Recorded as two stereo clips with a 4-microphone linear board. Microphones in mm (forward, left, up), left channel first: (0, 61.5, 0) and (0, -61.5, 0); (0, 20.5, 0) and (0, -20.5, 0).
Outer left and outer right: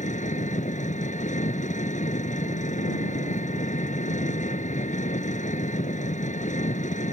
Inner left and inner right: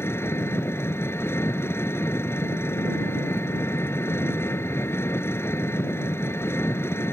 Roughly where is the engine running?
Left.